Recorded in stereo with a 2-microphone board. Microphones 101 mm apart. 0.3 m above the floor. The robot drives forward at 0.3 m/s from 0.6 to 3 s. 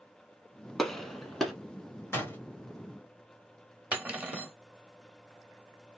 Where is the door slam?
25° left (ahead or behind), 1.0 m.